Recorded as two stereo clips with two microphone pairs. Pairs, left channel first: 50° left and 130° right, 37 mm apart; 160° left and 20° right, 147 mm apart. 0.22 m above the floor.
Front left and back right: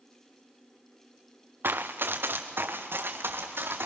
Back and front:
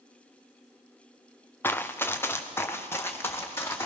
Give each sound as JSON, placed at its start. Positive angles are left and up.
{"t": 1.6, "sound": "running footsteps", "azimuth_deg": -120, "distance_m": 1.0}